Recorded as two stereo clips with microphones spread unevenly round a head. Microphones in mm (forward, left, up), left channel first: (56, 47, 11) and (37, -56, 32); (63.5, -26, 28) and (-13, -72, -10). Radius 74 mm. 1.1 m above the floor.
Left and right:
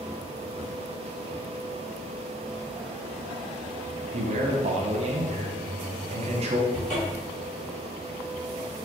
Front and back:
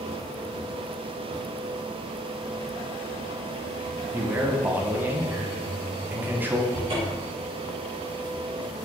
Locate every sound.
4.1 s a man speaking: 105° right, 0.8 m
6.7 s a cupboard door: 160° left, 1.9 m